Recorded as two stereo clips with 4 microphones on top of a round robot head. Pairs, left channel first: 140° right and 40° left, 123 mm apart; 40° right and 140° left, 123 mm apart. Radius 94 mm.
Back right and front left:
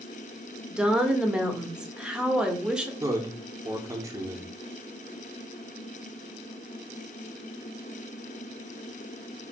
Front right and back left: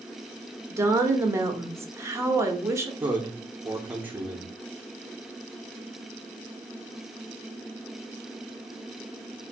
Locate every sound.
0.7 s a woman speaking: 115° left, 1.1 m
3.0 s a man speaking: 80° left, 0.9 m